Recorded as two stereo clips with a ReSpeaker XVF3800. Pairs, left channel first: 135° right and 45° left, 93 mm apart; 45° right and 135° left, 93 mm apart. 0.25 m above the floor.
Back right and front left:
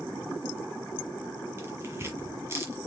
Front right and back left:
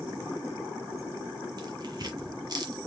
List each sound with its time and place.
1.6 s tearing paper: 105° left, 1.3 m